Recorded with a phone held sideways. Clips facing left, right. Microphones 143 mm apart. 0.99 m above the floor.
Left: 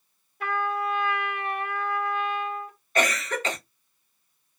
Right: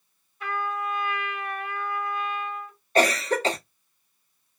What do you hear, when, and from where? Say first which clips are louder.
0.4 s a trumpet: left 2 dB; 65° left (ahead or behind), 1.4 m
3.0 s a cough: right 4 dB; 35° right (ahead or behind), 0.6 m